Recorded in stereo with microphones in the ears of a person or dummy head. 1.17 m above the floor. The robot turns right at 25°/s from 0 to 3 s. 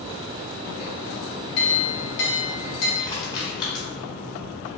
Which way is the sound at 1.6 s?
50° left (ahead or behind).